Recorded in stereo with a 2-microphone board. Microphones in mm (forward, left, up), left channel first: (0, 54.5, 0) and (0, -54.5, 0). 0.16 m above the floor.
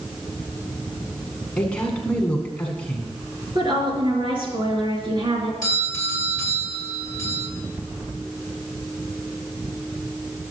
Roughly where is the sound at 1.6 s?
Centre.